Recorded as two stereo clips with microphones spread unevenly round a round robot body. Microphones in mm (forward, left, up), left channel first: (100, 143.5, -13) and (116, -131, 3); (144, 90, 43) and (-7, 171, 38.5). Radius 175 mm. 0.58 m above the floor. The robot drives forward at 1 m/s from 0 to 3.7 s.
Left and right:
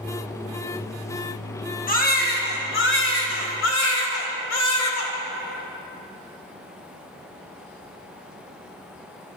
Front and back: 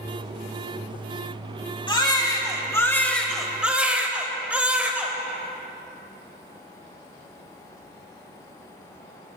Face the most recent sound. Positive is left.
turn(degrees=70)